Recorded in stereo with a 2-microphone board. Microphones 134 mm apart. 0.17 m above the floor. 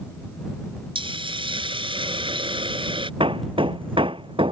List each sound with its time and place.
0.9 s a hiss: 40° right (ahead or behind)
3.2 s hammering: 40° right (ahead or behind)